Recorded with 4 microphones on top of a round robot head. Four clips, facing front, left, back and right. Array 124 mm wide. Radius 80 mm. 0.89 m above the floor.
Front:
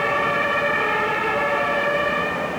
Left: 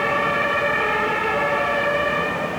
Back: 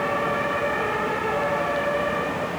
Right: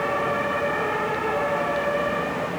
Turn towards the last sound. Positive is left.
No sound to turn to.